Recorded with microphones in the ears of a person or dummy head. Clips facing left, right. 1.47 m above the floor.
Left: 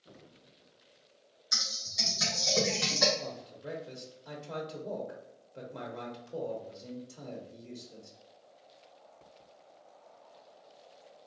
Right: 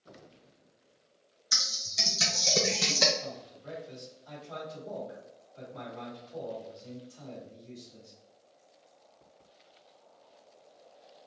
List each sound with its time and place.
1.5 s typing on a keyboard: 30° right (ahead or behind), 0.7 m
3.2 s a man speaking: 45° left (ahead or behind), 0.9 m